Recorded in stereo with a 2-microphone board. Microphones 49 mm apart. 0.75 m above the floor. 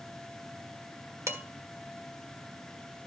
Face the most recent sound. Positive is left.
turn(degrees=-85)